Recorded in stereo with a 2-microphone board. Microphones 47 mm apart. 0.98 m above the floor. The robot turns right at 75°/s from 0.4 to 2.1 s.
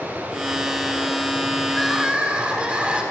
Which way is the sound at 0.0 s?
30° right.